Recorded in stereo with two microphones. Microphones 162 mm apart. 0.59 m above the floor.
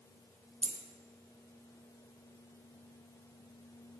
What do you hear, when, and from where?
0.6 s a dropped coin: 40° right (ahead or behind), 0.9 m